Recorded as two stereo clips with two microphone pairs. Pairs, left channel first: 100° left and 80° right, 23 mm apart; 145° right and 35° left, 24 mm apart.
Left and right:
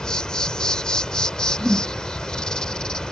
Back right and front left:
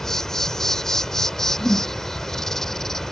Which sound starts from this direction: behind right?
A whoosh, at 1.6 s.